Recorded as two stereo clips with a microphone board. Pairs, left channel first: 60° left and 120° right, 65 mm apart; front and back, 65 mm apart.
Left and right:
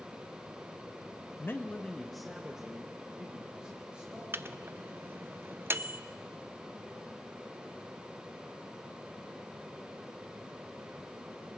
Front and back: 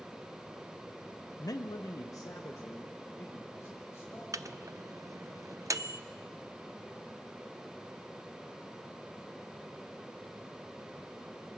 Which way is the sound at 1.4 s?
15° left.